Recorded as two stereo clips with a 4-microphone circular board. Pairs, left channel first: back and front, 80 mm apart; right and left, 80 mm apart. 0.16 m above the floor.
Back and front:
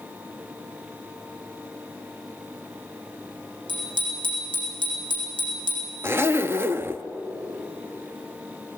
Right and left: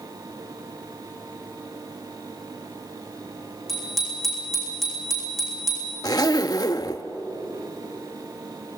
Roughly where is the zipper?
Ahead right.